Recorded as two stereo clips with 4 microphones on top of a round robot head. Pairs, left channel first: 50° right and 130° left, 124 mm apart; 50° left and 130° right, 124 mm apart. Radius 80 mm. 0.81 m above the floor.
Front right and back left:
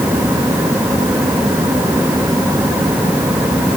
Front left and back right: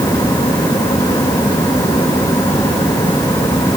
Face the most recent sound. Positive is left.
No sound to turn to.